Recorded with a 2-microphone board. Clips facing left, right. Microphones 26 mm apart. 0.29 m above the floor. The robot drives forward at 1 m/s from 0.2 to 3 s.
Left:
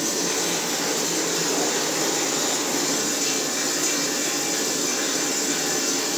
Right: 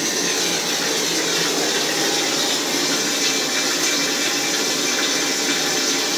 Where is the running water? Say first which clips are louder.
Right 4 dB; 60° right (ahead or behind), 4 m; by 6.2 s 70° right (ahead or behind), 4 m.